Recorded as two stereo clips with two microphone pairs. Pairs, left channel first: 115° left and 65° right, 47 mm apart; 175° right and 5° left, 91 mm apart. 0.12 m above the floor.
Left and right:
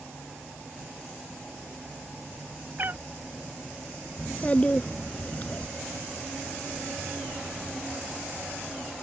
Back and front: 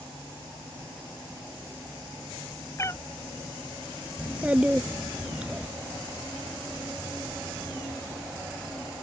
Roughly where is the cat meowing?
Behind right.